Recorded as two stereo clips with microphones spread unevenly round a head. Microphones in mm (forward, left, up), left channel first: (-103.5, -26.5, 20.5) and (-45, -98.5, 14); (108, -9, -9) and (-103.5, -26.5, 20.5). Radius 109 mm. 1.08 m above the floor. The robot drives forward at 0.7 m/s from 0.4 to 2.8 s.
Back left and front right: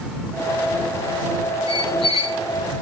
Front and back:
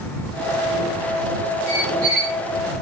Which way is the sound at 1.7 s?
150° left.